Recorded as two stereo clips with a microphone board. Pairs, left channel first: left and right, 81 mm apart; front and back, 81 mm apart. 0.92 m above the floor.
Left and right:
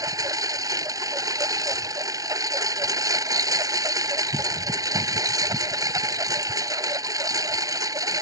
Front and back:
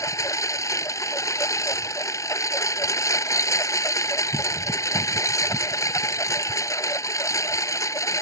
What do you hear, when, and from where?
0.0 s a lawn mower: 50° right